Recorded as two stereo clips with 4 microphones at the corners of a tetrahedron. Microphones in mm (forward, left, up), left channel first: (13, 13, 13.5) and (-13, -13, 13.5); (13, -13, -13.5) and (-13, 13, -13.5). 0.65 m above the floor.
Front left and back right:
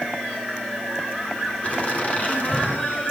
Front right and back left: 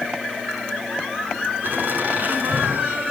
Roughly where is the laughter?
Left.